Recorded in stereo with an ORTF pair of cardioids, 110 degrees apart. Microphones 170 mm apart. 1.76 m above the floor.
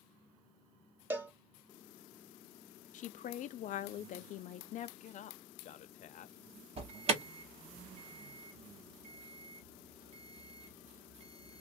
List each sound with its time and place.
1.1 s a cowbell: 15° right, 0.9 m
2.9 s a woman speaking: 55° left, 0.5 m
5.0 s a man speaking: 50° left, 0.6 m
6.8 s an alarm: 40° right, 1.1 m